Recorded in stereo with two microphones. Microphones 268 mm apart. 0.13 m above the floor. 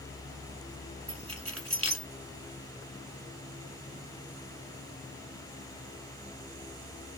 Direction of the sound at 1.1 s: 55° right (ahead or behind).